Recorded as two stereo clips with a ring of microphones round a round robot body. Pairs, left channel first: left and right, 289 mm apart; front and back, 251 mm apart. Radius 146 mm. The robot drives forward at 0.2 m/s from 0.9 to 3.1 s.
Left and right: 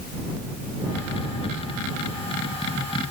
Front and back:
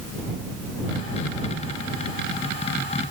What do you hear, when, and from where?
Only background noise.